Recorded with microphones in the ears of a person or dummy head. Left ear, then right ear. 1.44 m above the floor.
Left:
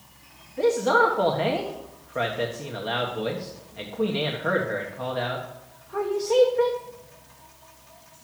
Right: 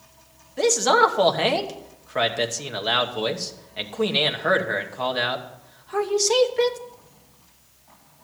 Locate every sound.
0.6 s a man speaking: 75° right (ahead or behind), 1.2 m